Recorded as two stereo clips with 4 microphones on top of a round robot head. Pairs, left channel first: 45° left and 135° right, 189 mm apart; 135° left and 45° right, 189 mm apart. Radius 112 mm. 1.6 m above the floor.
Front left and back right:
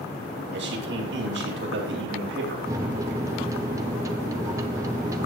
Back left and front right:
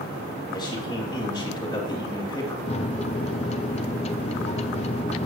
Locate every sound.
0.5 s a man speaking: 160° right, 3.5 m
2.7 s a microwave: 165° left, 0.5 m